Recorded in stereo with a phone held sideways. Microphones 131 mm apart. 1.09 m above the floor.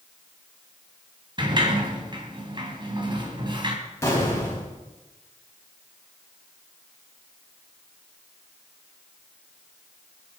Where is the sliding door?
35° right (ahead or behind), 2 m.